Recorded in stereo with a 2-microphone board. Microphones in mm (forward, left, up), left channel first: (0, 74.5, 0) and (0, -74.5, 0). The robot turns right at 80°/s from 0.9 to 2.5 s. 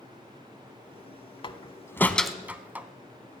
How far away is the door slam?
About 0.8 m.